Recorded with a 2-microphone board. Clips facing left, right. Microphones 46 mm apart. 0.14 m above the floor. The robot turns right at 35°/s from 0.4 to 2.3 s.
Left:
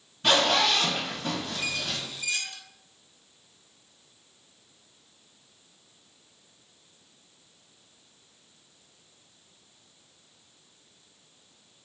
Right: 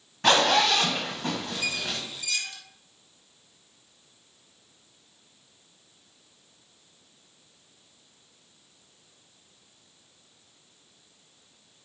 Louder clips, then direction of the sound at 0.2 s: Right 2 dB; 75° right (ahead or behind).